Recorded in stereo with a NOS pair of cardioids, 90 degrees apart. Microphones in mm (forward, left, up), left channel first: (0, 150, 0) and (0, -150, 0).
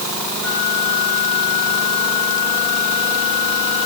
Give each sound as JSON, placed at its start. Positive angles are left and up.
{"t": 0.4, "sound": "a flute", "azimuth_deg": -50, "distance_m": 6.5}